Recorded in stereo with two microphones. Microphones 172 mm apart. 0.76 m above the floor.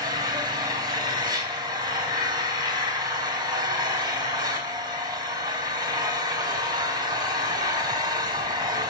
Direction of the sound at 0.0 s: 25° right (ahead or behind).